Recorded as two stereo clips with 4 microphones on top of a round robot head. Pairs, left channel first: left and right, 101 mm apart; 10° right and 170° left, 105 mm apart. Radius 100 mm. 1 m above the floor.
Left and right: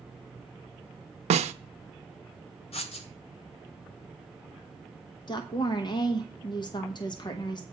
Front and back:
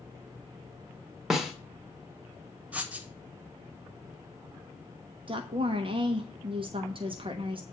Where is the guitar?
I don't hear a guitar.